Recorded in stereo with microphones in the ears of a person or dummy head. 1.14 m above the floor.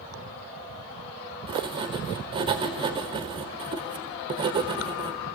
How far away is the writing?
About 1.2 m.